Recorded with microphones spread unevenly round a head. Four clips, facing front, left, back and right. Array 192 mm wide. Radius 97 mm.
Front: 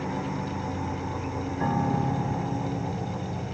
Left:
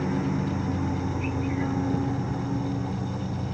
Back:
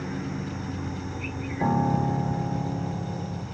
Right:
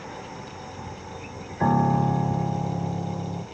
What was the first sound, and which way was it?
A lawn mower, 90° left.